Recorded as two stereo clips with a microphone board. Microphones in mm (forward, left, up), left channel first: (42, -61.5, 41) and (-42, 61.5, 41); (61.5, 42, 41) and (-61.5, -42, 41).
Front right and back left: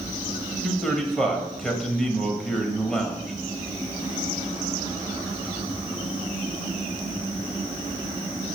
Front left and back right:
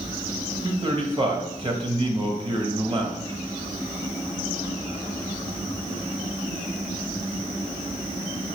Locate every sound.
0.6 s a man speaking: 140° right, 1.4 m